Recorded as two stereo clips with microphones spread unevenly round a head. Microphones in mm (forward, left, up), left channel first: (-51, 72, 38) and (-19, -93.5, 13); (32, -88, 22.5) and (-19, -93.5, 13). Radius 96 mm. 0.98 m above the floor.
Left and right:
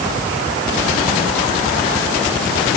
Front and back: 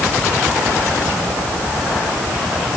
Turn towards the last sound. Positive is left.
No sound to turn to.